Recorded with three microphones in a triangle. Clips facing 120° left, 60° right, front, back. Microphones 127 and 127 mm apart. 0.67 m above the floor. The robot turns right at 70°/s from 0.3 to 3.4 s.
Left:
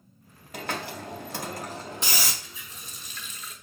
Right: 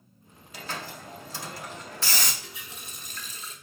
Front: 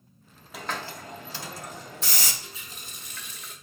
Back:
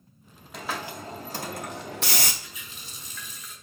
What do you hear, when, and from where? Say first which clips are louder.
0.5 s a hiss: left 4 dB, back 1 dB; 85° left, 0.6 m; by 2.3 s 150° right, 0.6 m
2.4 s a running tap: right 2 dB, front 1 dB; 70° right, 0.8 m; by 3.5 s straight ahead, 0.8 m